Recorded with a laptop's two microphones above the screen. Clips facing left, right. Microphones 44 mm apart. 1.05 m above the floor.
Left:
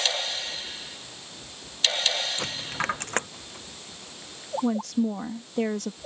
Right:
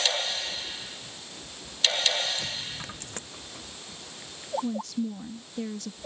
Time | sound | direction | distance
2.4 | a dropped coin | 55° left (ahead or behind) | ?
4.6 | a woman speaking | 70° left (ahead or behind) | ?